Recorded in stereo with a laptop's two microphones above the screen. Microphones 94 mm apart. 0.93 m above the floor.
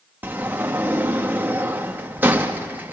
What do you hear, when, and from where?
0.2 s a sliding door: 20° right (ahead or behind), 0.9 m